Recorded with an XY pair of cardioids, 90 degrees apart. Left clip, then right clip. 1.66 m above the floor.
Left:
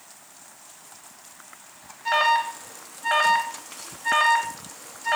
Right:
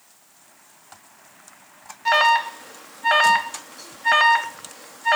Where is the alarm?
50° right, 3 m.